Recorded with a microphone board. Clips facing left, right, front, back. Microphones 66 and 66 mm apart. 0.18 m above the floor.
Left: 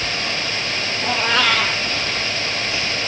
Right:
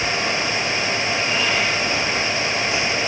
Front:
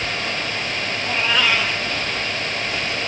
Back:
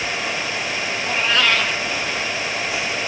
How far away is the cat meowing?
About 3 m.